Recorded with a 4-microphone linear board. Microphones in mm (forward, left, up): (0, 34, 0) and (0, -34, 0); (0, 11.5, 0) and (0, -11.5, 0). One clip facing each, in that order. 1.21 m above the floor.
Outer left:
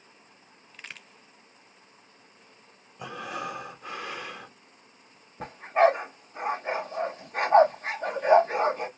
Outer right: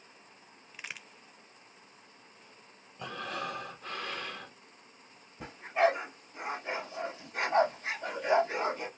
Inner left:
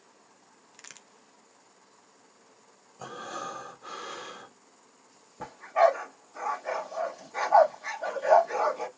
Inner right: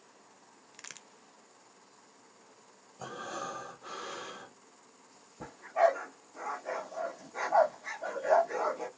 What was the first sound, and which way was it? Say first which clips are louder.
A crack: even, inner right 1 dB; 10° right (ahead or behind).